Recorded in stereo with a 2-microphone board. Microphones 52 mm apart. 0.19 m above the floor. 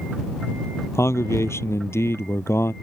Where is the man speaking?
65° left (ahead or behind); by 2.7 s 60° left (ahead or behind).